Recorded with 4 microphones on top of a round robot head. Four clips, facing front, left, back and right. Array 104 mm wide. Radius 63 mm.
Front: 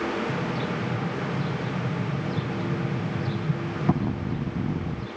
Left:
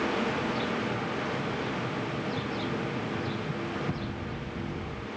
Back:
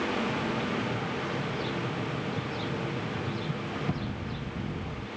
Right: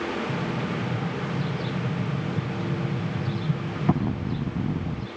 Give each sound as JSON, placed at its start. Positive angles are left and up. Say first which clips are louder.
{"t": 0.3, "sound": "an explosion", "louder": "right 1 dB, front 2 dB", "azimuth_deg": -50}